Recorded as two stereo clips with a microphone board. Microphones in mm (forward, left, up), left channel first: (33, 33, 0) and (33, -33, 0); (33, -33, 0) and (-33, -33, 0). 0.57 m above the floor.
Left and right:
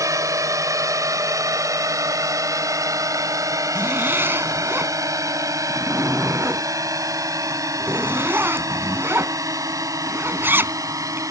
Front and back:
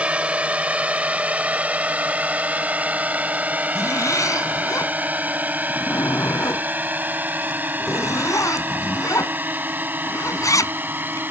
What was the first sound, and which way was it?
A drone, 110° right.